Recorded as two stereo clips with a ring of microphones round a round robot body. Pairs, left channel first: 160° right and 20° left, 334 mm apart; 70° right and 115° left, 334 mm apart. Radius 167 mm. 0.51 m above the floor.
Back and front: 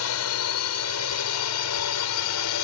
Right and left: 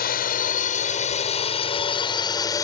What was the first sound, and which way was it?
A drone, 125° right.